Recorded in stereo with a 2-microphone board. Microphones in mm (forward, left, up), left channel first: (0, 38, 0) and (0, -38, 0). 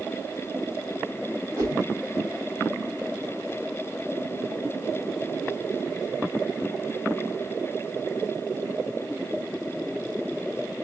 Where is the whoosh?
35° right (ahead or behind), 3 m.